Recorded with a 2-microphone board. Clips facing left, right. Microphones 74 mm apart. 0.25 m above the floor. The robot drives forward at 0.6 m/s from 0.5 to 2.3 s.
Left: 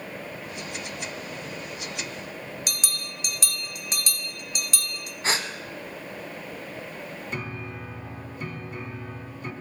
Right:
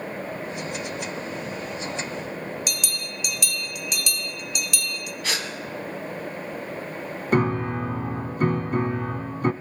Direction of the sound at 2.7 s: 40° left (ahead or behind).